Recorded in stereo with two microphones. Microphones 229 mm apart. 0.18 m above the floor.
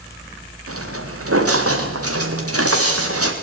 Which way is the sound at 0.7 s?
75° right (ahead or behind).